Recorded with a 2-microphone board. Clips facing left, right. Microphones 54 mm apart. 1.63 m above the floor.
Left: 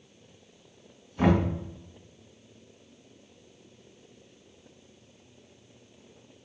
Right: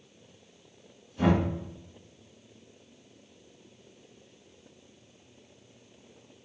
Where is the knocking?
55° left (ahead or behind), 1.6 m.